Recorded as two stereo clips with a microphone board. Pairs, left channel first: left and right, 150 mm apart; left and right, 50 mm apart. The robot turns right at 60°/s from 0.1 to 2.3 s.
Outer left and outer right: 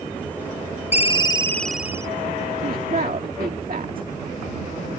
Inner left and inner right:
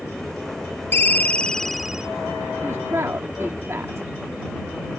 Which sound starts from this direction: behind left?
A ringtone, at 0.9 s.